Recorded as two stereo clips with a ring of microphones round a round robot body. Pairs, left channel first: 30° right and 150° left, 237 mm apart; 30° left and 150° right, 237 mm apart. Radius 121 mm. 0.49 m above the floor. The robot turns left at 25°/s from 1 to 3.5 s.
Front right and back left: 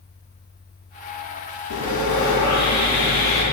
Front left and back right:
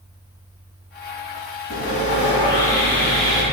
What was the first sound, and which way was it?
Sawing, 20° right.